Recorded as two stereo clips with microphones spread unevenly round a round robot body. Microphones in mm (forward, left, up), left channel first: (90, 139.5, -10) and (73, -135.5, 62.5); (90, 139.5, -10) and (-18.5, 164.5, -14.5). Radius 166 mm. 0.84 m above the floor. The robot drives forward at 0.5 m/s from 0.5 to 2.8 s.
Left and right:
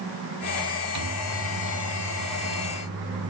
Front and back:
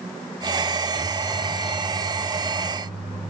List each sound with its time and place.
0.9 s a microwave: 125° right, 1.0 m; by 3.3 s 150° right, 1.7 m